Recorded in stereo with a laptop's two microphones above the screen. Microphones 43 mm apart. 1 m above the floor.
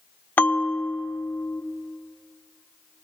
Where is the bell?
45° left (ahead or behind), 0.5 m.